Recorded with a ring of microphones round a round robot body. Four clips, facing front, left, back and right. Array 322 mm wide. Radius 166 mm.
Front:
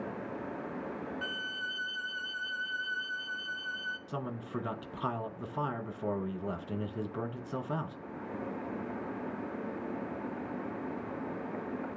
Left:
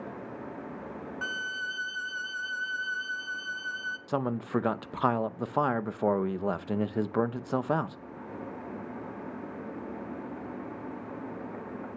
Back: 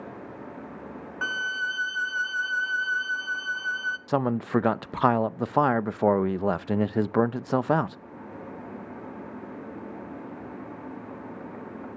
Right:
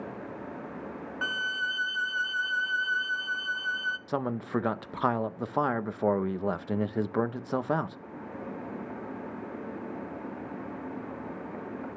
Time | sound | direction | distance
1.2 | a violin | 150° right | 0.7 m
4.1 | a man speaking | 175° right | 0.6 m